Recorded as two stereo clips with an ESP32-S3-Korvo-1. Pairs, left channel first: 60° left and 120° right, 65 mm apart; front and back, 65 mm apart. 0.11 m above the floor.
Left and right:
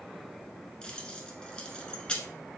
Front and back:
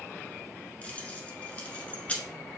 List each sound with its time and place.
0.8 s keys jangling: 15° left, 1.0 m